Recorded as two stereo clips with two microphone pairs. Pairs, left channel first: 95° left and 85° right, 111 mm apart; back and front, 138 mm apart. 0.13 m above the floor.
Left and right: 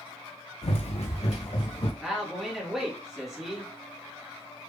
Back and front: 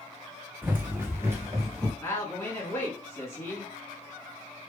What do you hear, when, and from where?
0.6 s running footsteps: 75° left, 0.6 m; by 1.9 s 70° left, 2 m
2.0 s a man speaking: 170° right, 1.5 m